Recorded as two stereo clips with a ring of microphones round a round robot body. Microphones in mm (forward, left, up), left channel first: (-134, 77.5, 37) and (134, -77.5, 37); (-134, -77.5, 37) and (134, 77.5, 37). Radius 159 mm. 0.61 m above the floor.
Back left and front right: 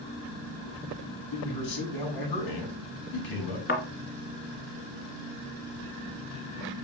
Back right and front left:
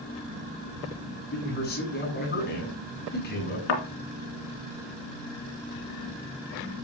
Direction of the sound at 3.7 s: 150° right.